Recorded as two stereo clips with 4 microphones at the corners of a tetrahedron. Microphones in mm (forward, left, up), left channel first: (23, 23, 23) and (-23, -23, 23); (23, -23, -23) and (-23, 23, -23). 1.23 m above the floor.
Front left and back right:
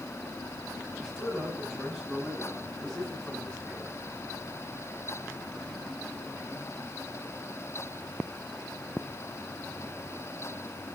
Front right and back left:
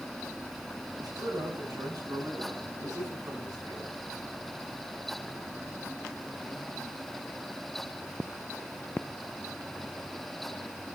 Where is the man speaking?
130° left, 9.5 m; by 4.0 s 125° left, 11.5 m.